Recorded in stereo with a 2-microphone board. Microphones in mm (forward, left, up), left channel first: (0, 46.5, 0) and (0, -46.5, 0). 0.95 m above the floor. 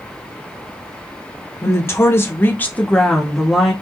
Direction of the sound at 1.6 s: 30° left (ahead or behind).